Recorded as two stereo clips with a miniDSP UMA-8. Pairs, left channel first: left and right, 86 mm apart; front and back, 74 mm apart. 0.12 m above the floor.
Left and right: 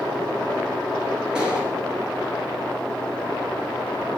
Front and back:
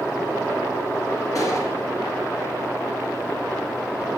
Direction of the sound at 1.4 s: 15° right.